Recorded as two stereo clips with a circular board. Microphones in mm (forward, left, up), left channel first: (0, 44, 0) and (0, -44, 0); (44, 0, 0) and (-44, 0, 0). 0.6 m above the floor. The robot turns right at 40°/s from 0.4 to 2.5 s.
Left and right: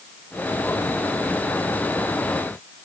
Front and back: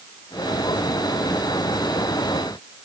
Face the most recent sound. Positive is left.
No sound to turn to.